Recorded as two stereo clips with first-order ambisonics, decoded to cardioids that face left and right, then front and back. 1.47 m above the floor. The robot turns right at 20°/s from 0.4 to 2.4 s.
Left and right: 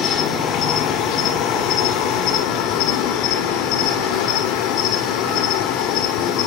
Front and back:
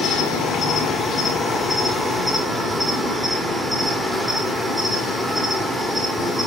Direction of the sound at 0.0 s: 55° left.